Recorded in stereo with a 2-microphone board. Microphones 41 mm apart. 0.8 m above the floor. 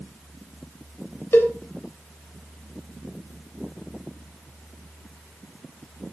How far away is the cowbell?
About 2.5 m.